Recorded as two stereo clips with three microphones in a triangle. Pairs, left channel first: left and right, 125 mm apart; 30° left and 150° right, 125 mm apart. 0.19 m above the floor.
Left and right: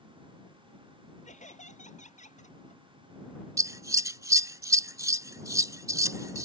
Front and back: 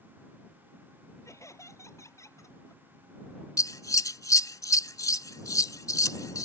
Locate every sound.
1.2 s laughter: 95° left
3.6 s scissors: 30° right